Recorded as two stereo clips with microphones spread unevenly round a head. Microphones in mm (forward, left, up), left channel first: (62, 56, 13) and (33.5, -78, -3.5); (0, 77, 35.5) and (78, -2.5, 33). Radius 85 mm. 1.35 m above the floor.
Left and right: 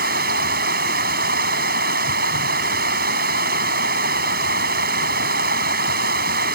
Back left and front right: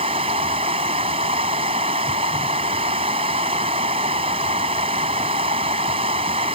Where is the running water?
105° right.